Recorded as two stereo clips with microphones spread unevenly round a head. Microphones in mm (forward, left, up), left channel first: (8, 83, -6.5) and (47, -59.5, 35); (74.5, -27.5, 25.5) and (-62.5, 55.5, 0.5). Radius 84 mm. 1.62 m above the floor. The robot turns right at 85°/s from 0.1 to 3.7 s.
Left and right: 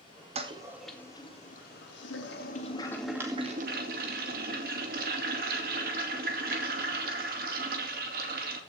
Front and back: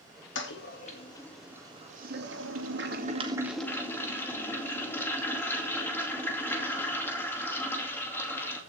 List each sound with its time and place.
0.3 s a toilet flushing: 30° right, 2.5 m; by 8.6 s 110° right, 2.5 m